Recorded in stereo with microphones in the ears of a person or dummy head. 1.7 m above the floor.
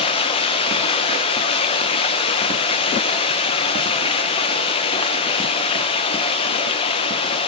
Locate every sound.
0.0 s running water: 35° left (ahead or behind), 1.2 m